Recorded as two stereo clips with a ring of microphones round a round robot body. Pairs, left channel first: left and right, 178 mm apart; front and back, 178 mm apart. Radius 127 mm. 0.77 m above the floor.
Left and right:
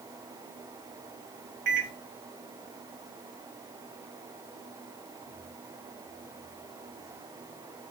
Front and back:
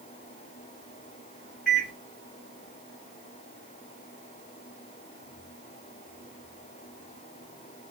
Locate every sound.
1.7 s a microwave: 90° right, 1.7 m